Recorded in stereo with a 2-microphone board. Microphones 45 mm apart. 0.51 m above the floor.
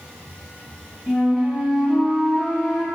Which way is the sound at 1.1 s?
Centre (ahead or behind).